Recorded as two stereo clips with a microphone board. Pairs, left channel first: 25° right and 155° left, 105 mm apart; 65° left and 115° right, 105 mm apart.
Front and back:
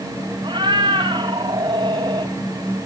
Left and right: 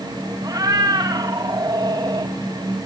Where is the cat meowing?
160° right, 1.8 m.